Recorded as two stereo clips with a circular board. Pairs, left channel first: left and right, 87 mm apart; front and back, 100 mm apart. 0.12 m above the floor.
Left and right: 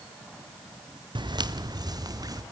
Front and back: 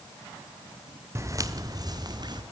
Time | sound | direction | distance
1.1 | footsteps | 120° right | 1.5 m